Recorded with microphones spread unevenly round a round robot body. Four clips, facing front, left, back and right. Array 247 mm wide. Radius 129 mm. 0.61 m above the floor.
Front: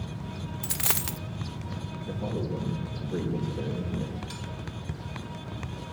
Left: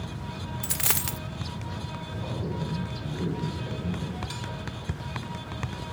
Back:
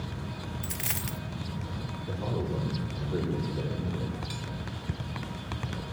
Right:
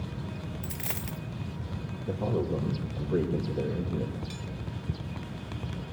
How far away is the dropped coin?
About 0.7 m.